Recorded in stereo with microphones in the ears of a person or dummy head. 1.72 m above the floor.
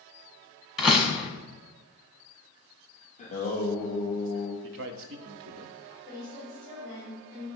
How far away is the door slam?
About 1.1 m.